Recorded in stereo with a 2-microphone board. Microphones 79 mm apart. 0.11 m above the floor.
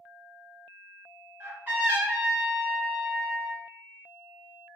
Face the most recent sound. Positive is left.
turn(degrees=-20)  # may be behind; listen again after turning